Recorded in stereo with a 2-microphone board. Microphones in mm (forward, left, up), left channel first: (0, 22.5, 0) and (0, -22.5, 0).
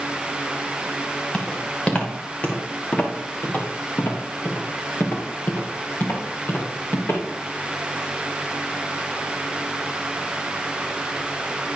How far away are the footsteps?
About 3.5 m.